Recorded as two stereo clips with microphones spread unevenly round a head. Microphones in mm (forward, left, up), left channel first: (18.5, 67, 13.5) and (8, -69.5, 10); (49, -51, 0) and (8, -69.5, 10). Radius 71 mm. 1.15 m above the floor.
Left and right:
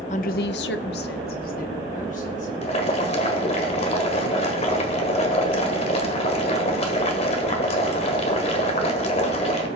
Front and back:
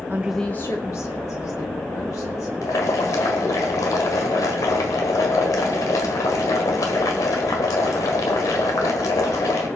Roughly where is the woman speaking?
Behind left.